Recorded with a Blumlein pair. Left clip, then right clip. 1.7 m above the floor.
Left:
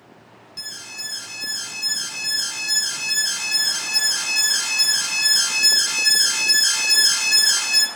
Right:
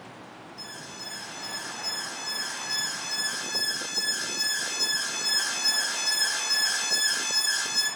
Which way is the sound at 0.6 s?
50° left.